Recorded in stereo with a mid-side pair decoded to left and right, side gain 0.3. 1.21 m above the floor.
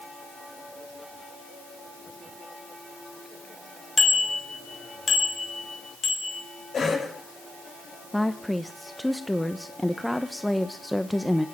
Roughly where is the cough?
Ahead left.